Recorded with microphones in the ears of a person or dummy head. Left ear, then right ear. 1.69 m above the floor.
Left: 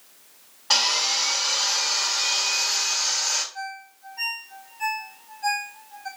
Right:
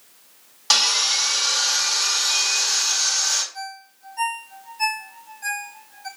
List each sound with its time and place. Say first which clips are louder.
0.7 s sawing: right 3 dB; 75° right (ahead or behind), 5 m
3.5 s a ringtone: even; 75° right (ahead or behind), 4 m